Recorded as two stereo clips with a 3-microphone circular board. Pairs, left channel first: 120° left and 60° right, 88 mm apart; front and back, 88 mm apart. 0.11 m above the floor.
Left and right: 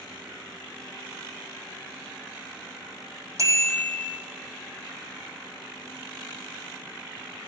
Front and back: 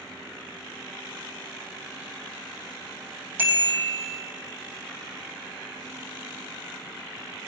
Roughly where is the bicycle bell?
Behind right.